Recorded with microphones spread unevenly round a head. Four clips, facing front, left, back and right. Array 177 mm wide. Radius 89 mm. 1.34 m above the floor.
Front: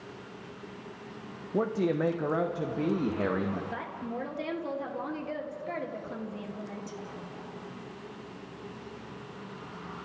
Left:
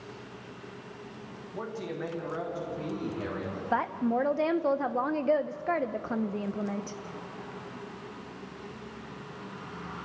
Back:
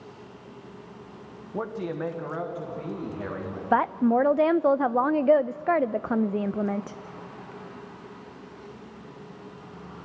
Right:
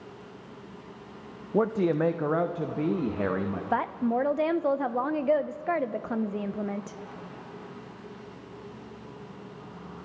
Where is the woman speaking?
175° right, 0.6 m.